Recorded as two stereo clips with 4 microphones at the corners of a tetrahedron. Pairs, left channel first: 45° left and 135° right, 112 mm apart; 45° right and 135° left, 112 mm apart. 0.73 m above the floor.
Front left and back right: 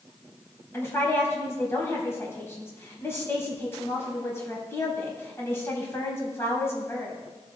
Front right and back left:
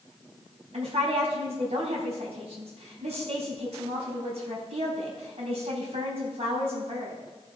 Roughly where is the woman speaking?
Left.